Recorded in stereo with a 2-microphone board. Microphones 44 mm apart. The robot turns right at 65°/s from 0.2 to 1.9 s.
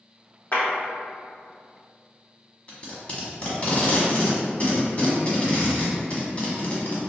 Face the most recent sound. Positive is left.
turn(degrees=30)  # may be behind; listen again after turning